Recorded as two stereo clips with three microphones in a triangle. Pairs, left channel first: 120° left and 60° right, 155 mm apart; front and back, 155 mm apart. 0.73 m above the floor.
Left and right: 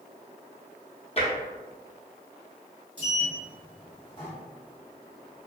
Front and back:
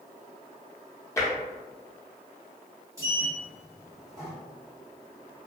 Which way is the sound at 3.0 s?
130° left.